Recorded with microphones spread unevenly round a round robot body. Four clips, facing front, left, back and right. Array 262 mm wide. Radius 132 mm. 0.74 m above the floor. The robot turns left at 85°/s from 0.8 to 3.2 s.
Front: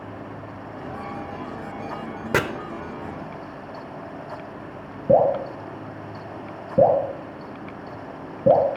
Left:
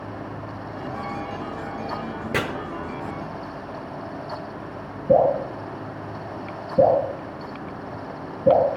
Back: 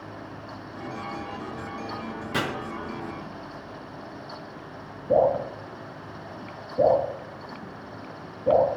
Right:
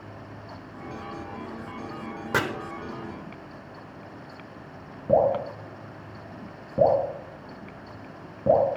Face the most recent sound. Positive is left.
turn(degrees=-5)